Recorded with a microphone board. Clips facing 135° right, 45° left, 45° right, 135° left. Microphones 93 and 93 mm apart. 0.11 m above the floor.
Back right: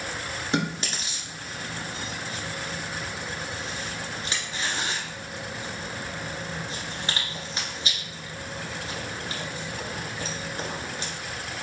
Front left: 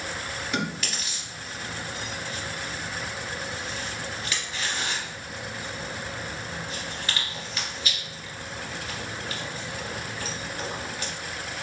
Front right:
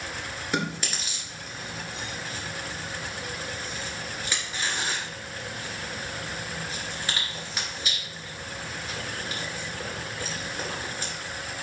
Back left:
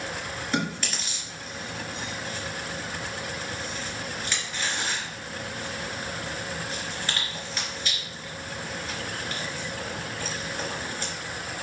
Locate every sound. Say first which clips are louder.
0.5 s chewing: back right 4 dB, even; 110° right, 1.9 m